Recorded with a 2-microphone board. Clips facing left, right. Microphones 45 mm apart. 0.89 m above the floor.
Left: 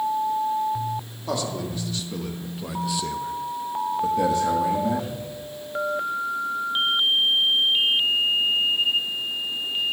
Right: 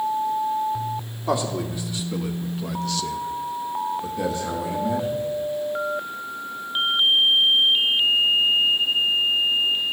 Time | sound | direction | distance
1.3 | a man speaking | 20° right (ahead or behind) | 2.0 m